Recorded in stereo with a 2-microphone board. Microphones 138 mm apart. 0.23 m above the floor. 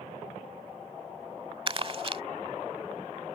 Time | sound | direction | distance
1.7 | crumpling | 40° right (ahead or behind) | ?